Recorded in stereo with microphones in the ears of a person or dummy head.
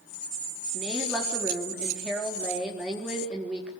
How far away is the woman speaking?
About 4 m.